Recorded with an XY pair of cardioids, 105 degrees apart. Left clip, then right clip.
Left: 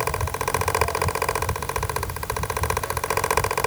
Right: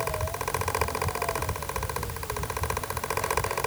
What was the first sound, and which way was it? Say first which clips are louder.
A fan: left 5 dB; 35° left.